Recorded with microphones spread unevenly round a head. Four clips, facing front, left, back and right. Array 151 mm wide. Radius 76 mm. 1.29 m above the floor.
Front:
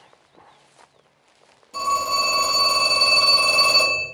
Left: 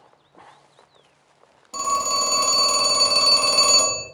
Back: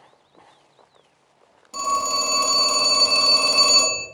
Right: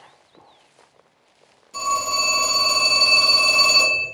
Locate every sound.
1.7 s a phone ringing: 115° left, 1.1 m